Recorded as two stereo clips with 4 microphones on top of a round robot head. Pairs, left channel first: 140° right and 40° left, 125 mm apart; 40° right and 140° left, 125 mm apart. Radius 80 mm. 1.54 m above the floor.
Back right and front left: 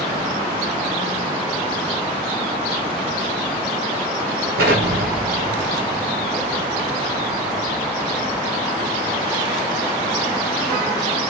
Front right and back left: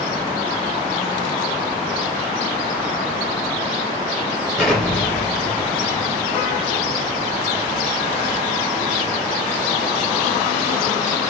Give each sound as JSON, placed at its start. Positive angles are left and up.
{"t": 4.6, "sound": "an explosion", "azimuth_deg": 45, "distance_m": 0.6}